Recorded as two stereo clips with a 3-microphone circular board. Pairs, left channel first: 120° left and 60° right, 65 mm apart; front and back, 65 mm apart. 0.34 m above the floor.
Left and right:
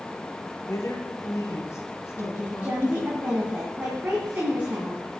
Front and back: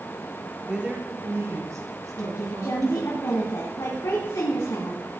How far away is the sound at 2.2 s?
About 2.5 m.